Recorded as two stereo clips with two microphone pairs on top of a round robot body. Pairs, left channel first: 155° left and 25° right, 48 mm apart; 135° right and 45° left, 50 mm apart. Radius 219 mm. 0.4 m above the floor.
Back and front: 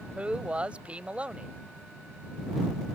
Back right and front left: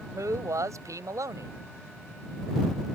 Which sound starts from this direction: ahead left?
A man speaking, at 0.1 s.